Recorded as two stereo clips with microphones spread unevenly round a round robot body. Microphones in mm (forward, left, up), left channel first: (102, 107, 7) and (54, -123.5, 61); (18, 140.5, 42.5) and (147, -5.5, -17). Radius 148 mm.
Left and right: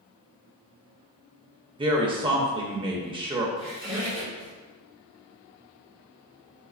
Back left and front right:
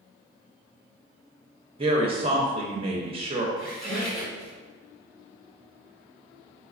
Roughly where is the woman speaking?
Ahead right.